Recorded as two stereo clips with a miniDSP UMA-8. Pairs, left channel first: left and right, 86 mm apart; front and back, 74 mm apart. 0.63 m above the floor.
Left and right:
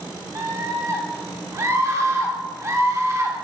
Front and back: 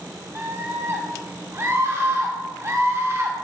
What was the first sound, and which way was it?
A scream, 135° right.